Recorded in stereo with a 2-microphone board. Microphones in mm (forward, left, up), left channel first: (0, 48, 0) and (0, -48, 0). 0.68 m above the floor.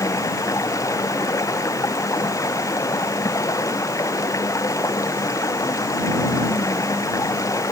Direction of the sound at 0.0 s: 35° left (ahead or behind).